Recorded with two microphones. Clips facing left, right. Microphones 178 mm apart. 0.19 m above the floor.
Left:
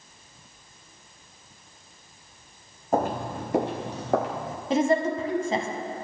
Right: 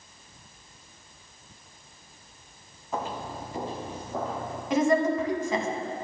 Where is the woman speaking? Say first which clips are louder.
Even; 30° left (ahead or behind), 1.2 m.